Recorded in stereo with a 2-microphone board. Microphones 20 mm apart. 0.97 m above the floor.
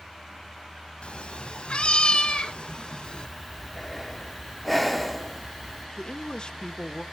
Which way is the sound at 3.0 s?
5° left (ahead or behind).